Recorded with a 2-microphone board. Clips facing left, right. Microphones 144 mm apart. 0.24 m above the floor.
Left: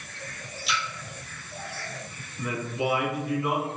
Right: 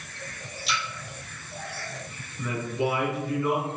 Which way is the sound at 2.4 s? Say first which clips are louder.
Right 1 dB; 15° left (ahead or behind).